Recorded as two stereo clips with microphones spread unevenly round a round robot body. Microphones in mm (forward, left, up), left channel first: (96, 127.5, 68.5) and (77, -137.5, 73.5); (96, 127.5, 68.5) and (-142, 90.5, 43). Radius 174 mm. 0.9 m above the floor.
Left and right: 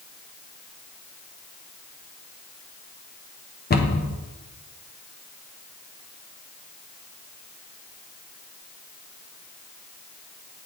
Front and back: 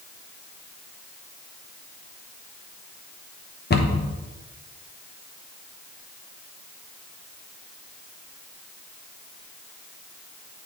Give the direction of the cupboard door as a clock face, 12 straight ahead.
10 o'clock.